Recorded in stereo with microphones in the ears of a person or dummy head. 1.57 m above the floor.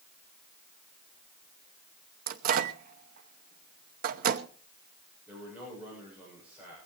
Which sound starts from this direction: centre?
A man speaking, at 5.3 s.